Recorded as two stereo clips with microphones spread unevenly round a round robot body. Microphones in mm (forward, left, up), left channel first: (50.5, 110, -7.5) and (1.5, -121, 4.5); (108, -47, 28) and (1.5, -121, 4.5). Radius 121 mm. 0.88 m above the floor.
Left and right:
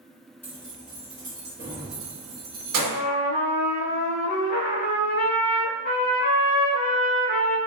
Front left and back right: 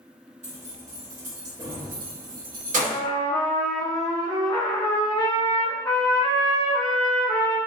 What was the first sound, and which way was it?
Keys jangling, 160° left.